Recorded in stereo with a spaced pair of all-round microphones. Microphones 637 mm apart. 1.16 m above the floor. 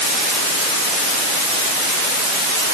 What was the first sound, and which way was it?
Only background noise.